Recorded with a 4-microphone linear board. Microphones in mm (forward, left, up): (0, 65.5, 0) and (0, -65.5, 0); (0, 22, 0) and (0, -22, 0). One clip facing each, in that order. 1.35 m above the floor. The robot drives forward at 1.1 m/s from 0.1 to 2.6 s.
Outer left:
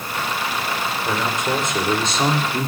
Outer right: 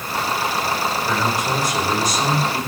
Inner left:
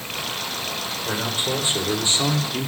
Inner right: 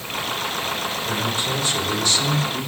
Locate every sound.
1.1 s a man speaking: 20° left (ahead or behind), 4.5 m; by 2.7 s 30° left (ahead or behind), 3 m